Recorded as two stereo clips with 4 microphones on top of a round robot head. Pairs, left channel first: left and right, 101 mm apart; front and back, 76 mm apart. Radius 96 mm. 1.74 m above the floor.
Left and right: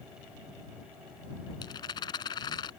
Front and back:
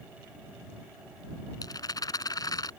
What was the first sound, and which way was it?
A rattle, 35° left.